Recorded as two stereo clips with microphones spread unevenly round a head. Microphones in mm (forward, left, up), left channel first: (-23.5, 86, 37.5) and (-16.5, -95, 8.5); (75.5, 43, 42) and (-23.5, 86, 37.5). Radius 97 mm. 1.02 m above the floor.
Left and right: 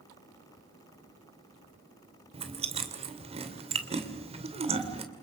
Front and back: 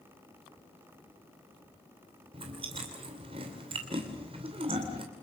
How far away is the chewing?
About 2.5 m.